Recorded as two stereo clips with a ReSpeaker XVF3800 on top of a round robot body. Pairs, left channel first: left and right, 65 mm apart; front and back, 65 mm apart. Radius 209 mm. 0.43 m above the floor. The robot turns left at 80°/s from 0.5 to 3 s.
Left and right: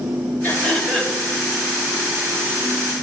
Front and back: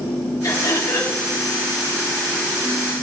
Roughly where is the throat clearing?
Ahead left.